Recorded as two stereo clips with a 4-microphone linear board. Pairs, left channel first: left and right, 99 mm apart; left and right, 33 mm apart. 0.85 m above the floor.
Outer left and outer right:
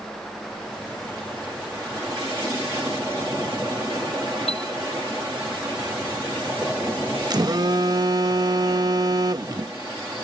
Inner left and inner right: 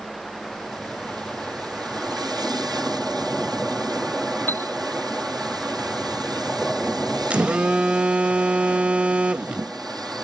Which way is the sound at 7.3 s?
40° right (ahead or behind).